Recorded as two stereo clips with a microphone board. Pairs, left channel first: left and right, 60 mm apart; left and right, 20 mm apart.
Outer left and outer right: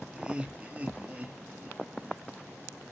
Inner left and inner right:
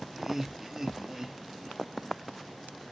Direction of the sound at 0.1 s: 20° right (ahead or behind).